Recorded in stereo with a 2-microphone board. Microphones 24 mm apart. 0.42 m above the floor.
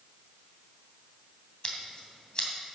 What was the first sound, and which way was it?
Scissors, 45° left (ahead or behind).